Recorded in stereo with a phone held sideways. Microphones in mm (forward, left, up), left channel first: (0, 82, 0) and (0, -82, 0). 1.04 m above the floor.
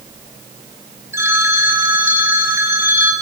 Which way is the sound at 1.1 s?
15° right (ahead or behind).